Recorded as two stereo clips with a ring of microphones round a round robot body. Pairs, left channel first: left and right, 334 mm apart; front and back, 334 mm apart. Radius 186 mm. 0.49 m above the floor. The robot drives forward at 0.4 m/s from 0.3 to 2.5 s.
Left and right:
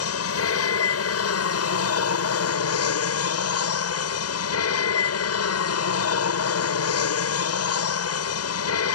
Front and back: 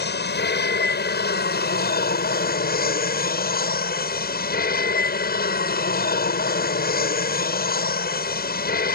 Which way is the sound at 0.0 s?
55° left.